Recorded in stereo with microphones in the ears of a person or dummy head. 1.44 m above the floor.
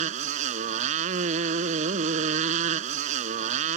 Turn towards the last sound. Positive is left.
turn(degrees=-45)  # may be behind; listen again after turning